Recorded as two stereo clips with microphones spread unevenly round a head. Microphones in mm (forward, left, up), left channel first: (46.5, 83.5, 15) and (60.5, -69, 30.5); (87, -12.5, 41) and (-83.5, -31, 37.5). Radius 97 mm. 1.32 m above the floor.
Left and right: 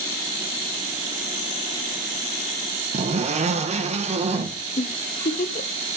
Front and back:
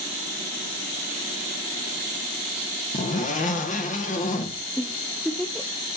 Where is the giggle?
90° left, 0.6 m.